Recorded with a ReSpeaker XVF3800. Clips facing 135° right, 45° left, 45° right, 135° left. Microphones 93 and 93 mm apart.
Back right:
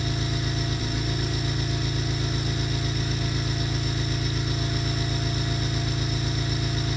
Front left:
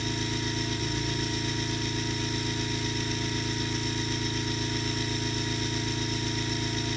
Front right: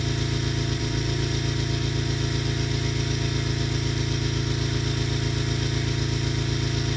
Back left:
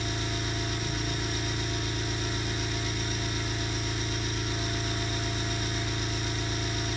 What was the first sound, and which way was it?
An engine running, 55° right.